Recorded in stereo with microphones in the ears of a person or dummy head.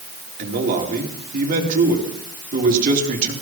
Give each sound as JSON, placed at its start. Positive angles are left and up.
{"t": 0.4, "sound": "a man speaking", "side_deg": -40, "distance_m": 3.0}